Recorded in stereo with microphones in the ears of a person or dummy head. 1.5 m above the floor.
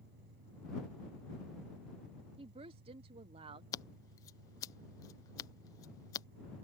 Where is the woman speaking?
35° right (ahead or behind).